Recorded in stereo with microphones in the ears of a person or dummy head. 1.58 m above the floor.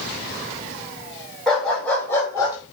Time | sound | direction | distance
1.5 | a dog barking | centre (ahead or behind) | 4 m